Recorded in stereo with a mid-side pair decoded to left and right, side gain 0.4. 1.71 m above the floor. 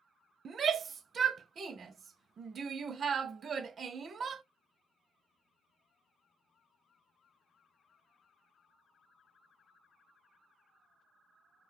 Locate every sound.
0.5 s a shout: 55° right, 0.5 m